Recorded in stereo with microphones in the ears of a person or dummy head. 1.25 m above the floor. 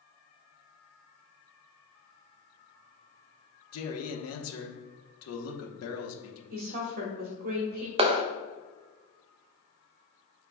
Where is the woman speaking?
50° right (ahead or behind), 1.2 m.